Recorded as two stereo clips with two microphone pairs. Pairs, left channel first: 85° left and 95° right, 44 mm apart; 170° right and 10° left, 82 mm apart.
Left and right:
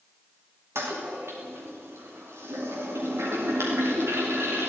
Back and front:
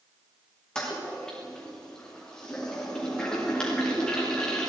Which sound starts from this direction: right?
A toilet flushing, at 0.8 s.